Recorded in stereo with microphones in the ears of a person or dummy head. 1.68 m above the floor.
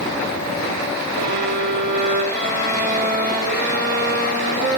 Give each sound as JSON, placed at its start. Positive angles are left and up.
{"t": 1.1, "sound": "a violin", "side_deg": -50, "distance_m": 1.2}